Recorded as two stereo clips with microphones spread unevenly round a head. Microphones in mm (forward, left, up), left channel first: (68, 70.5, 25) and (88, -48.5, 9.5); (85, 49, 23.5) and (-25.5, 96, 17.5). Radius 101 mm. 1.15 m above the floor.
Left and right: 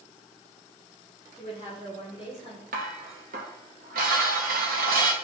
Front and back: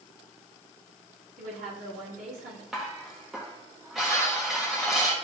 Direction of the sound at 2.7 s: 115° right.